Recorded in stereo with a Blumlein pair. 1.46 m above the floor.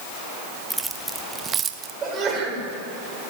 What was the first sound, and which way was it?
Keys jangling, straight ahead.